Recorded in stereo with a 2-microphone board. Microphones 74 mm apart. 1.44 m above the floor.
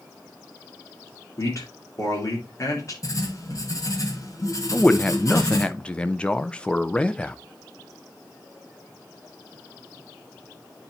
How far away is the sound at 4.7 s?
About 0.5 m.